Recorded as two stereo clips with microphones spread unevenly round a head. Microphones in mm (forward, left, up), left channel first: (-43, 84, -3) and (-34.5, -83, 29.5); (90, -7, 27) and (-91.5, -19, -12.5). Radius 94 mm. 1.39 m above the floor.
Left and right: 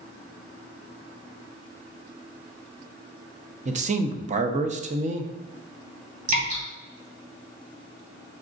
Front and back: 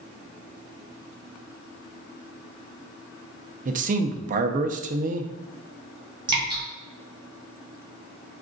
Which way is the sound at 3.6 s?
125° right.